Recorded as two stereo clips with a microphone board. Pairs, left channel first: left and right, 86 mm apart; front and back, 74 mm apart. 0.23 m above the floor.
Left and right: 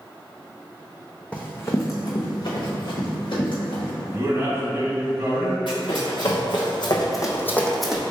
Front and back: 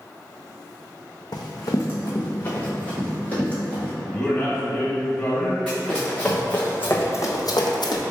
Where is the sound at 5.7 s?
85° left, 1.5 m; by 8.0 s 10° right, 0.6 m.